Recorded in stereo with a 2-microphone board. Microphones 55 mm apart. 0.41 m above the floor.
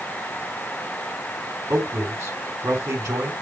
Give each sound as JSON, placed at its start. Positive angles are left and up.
{"t": 1.7, "sound": "a man speaking", "side_deg": -70, "distance_m": 4.5}